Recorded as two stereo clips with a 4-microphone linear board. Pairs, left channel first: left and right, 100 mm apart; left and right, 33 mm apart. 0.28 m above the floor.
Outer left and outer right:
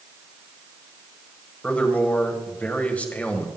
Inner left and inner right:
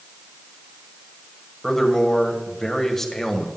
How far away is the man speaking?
About 1.6 m.